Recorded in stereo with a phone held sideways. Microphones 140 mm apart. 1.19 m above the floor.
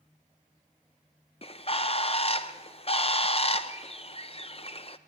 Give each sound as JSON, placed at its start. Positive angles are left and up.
{"t": 1.4, "sound": "a bird", "side_deg": 45, "distance_m": 0.6}